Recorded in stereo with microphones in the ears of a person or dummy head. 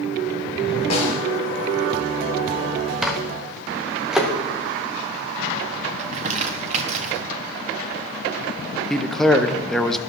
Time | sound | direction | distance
0.9 | a snare drum | 40° left (ahead or behind) | 3.5 m
3.0 | a microwave | centre (ahead or behind) | 0.8 m
6.0 | crumpling | 45° right (ahead or behind) | 1.1 m
8.9 | a man speaking | centre (ahead or behind) | 0.6 m